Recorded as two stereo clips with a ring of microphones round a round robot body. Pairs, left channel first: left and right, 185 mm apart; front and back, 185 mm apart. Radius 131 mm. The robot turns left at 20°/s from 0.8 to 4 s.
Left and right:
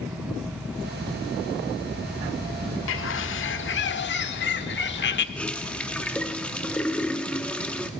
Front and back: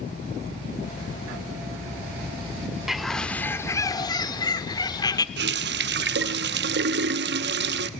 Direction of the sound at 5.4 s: 175° left.